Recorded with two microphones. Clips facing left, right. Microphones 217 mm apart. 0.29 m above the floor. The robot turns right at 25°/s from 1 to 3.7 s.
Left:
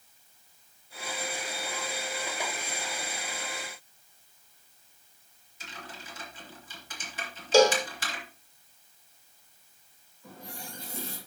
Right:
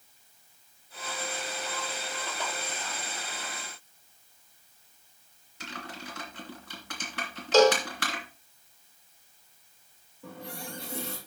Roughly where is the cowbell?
Centre.